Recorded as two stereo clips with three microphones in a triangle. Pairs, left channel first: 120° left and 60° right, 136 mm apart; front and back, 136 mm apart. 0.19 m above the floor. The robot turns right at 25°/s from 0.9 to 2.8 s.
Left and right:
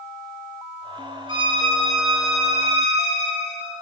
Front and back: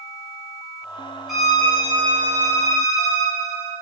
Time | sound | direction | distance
1.3 | a violin | 90° right | 2 m